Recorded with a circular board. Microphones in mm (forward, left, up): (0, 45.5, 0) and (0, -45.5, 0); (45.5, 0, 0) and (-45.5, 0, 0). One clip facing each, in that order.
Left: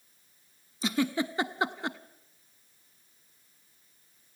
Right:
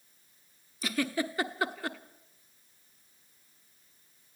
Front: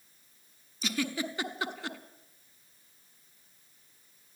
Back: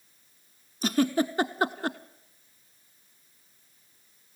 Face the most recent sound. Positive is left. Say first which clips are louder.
# left 3 dB, back 9 dB
turn(degrees=150)